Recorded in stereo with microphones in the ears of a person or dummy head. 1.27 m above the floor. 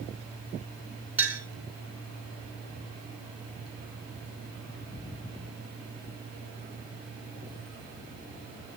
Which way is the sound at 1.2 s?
10° right (ahead or behind).